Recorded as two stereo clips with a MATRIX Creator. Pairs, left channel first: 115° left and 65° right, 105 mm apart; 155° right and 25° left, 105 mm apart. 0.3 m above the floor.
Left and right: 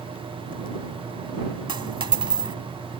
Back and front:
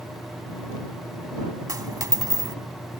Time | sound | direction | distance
1.7 | a dropped coin | 30° right | ?